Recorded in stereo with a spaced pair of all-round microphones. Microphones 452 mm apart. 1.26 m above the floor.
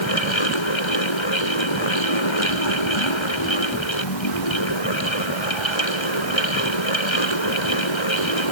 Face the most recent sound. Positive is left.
turn(degrees=85)